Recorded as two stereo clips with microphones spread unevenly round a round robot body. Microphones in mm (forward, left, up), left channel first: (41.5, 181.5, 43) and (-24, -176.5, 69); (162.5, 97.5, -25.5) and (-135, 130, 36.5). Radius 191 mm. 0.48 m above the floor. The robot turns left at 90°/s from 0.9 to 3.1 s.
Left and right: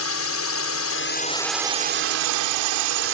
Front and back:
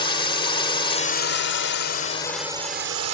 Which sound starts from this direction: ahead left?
A drone, at 0.0 s.